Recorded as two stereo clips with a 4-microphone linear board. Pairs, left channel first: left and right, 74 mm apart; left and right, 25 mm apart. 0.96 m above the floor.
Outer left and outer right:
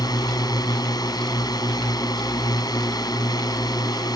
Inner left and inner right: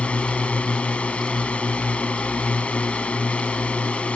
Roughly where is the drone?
Left.